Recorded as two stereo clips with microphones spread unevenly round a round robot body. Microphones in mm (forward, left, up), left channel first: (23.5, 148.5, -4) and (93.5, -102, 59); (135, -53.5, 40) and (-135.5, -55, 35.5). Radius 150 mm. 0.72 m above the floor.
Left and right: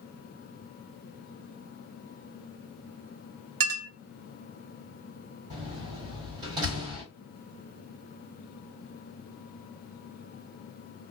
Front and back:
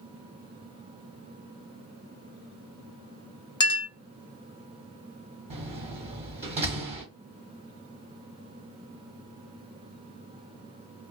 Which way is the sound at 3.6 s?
75° right.